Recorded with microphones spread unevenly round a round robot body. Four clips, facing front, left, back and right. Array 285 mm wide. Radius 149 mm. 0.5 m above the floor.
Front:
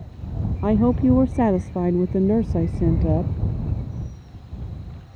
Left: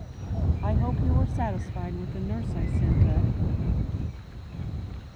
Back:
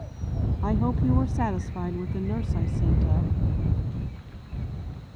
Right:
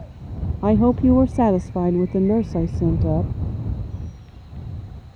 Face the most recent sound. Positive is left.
turn(degrees=-40)